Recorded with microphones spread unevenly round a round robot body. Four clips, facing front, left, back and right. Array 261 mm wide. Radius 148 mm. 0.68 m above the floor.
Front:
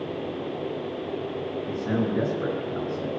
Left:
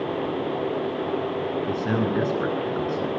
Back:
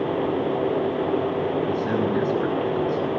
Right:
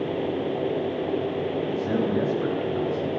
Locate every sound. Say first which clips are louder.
1.7 s a man speaking: left 1 dB, back 4 dB; 105° left, 9.5 m